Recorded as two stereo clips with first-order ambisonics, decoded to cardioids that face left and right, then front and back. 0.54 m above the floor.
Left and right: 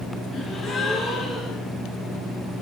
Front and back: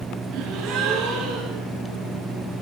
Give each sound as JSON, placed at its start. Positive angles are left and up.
{"t": 0.3, "sound": "a gasp", "azimuth_deg": 150, "distance_m": 9.0}